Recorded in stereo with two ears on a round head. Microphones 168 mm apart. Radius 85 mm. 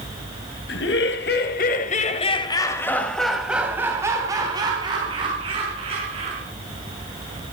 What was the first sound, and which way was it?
Laughter, 70° left (ahead or behind).